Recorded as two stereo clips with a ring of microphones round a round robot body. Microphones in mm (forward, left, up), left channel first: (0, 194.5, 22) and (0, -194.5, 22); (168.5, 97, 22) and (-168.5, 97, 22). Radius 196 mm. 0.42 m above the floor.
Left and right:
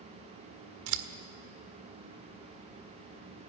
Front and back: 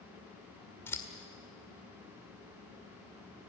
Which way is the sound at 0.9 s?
80° right.